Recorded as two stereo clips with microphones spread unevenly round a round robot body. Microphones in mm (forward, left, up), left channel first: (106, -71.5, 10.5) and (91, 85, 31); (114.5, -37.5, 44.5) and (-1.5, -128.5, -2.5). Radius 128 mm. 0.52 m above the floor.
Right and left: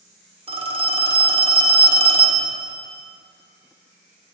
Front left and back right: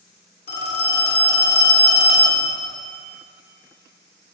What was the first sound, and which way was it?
A phone ringing, 40° left.